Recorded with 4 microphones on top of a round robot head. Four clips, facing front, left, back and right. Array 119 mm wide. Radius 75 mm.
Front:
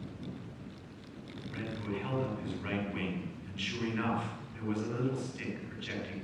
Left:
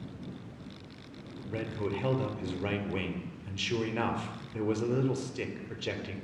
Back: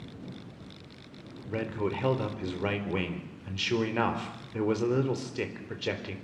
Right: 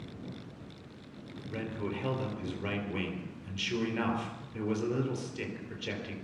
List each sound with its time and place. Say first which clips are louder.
1.5 s a man speaking: left 2 dB, back 7 dB; 165° left, 4 m